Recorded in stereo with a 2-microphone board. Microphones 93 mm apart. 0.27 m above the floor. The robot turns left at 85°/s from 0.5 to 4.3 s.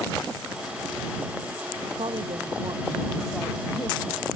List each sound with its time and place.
2.0 s a woman speaking: 70° right; by 4.3 s 100° left